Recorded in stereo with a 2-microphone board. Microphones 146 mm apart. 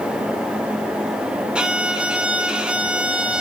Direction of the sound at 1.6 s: 5° right (ahead or behind).